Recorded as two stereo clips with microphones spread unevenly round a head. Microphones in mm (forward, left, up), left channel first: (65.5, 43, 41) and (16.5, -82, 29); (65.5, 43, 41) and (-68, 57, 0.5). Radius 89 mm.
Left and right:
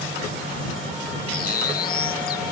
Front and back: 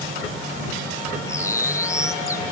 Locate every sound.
1.3 s a bird: 60° left